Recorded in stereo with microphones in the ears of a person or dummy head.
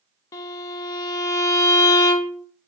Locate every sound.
0.3 s a violin: 20° left (ahead or behind), 0.7 m